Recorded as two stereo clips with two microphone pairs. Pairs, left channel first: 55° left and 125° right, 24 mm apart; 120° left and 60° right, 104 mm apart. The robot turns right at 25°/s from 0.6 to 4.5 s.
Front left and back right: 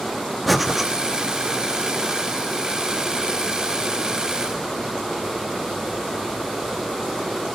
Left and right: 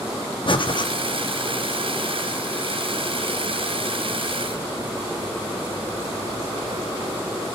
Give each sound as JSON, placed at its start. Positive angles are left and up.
{"t": 0.5, "sound": "breathing", "azimuth_deg": 150, "distance_m": 0.9}